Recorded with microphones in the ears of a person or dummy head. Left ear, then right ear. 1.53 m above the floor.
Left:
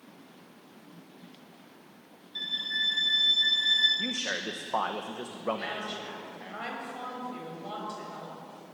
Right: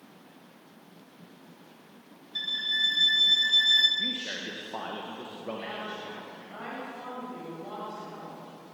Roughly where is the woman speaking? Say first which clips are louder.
Left 1 dB; left.